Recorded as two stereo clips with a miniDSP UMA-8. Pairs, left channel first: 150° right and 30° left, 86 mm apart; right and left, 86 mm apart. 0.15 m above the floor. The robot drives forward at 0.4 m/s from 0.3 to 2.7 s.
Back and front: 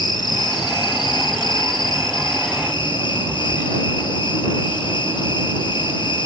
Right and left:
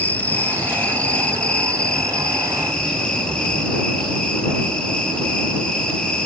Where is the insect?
155° right, 1.0 m; by 6.3 s 170° right, 1.9 m.